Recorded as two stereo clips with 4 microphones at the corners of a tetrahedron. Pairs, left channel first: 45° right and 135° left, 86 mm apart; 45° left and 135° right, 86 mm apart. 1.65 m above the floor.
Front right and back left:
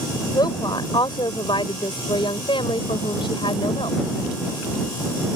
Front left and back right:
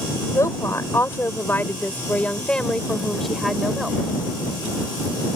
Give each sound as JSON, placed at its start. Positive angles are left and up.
{"t": 0.3, "sound": "a woman speaking", "azimuth_deg": -10}